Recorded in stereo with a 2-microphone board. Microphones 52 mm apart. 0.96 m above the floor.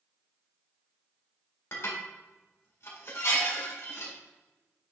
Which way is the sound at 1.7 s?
55° left (ahead or behind).